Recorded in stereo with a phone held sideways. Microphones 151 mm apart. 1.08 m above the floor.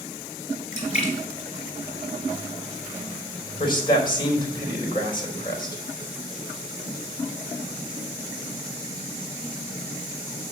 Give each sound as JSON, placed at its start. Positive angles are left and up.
{"t": 0.7, "sound": "a splash", "side_deg": 45, "distance_m": 4.0}
{"t": 3.6, "sound": "a man speaking", "side_deg": 30, "distance_m": 4.0}